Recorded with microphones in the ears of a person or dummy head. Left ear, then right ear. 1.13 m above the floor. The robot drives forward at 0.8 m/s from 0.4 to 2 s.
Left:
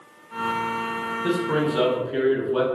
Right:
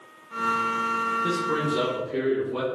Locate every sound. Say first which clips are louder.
1.2 s a man speaking: left 2 dB; 15° left (ahead or behind), 1.7 m; by 2.6 s 20° left (ahead or behind), 1.2 m